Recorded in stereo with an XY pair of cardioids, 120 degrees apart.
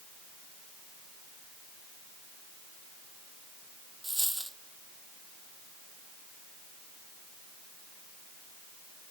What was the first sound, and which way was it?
A dropped coin, 10° right.